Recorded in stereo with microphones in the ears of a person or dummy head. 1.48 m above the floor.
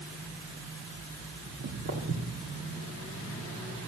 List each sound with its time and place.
1.4 s footsteps: 55° right (ahead or behind), 3 m; by 2.5 s 50° right (ahead or behind), 3 m